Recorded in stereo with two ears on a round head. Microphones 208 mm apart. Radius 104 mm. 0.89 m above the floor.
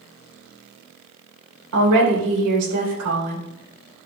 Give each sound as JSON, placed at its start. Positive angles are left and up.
{"t": 1.7, "sound": "a woman speaking", "side_deg": -75, "distance_m": 3.0}